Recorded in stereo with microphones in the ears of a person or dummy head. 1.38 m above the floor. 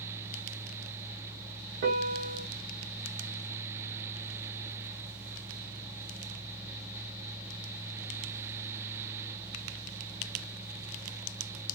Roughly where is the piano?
Right.